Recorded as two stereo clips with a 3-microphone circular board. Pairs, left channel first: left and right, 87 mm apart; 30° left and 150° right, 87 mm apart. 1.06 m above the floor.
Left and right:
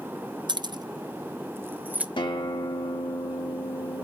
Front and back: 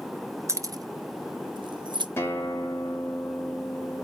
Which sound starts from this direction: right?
Keys jangling, at 0.5 s.